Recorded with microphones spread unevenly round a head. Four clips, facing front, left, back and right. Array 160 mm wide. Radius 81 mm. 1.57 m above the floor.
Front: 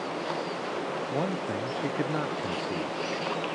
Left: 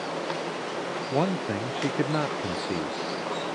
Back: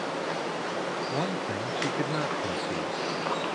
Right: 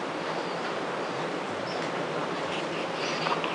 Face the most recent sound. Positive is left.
turn(degrees=85)